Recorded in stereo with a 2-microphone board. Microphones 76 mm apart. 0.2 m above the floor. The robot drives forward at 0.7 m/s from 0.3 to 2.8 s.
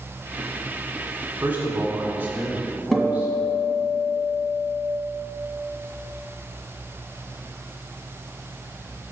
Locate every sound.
1.4 s a man speaking: 20° right (ahead or behind), 1.8 m; by 3.3 s 25° right (ahead or behind), 1.5 m
2.9 s a guitar: centre (ahead or behind), 1.5 m